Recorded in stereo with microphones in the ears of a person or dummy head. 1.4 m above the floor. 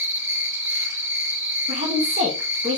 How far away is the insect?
About 1.9 m.